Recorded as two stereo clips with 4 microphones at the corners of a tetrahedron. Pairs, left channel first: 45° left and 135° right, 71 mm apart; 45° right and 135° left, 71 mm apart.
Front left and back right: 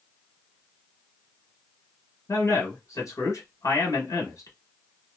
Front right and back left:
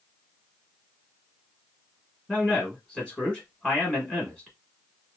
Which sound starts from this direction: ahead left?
A man speaking, at 2.3 s.